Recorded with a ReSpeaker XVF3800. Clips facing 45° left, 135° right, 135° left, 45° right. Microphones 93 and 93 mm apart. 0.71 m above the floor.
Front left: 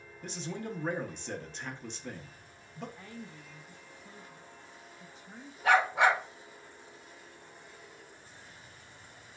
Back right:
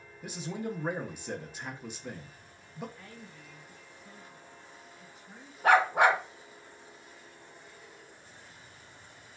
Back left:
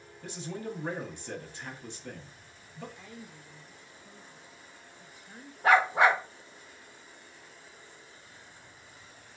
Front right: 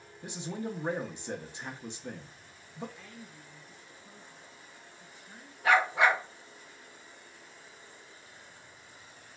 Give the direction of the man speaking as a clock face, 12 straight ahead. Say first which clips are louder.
Back right 2 dB, front right 1 dB; 2 o'clock.